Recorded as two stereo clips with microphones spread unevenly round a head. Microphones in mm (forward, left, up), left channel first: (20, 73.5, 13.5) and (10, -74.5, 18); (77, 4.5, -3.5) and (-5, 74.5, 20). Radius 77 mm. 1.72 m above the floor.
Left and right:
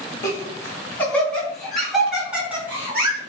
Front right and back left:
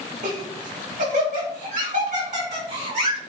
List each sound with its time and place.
0.2 s laughter: 155° left, 3.5 m; by 3.2 s 170° right, 4.5 m